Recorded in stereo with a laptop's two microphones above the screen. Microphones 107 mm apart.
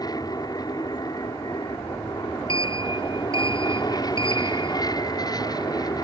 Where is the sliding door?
55° left (ahead or behind).